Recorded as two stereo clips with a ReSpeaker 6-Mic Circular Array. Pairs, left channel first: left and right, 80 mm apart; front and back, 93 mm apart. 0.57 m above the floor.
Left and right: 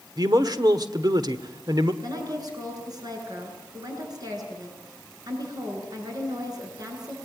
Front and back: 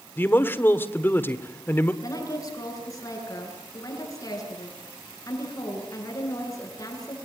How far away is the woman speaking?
About 8 m.